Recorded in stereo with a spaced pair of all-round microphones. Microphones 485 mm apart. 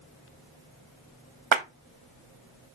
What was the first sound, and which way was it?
A clap, 70° right (ahead or behind).